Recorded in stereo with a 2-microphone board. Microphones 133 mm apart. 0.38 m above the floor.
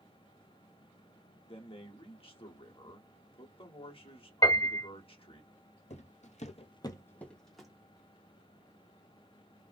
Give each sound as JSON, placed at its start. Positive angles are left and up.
{"t": 1.5, "sound": "a man speaking", "side_deg": 40, "distance_m": 1.1}
{"t": 4.4, "sound": "a piano", "side_deg": 25, "distance_m": 1.9}
{"t": 5.9, "sound": "footsteps", "side_deg": 55, "distance_m": 0.8}